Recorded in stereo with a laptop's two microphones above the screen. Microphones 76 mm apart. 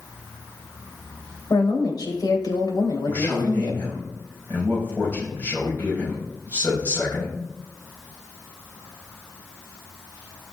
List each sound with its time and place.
1.5 s a woman speaking: 60° left (ahead or behind), 5 m
3.1 s a man speaking: 20° left (ahead or behind), 6.5 m